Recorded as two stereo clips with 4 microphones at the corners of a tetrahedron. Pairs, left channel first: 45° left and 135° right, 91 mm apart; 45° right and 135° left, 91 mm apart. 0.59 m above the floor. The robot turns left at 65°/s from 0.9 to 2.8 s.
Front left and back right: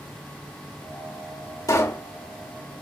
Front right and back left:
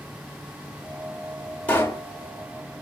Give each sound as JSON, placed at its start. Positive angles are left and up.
{"t": 1.7, "sound": "a pop", "azimuth_deg": 15, "distance_m": 1.6}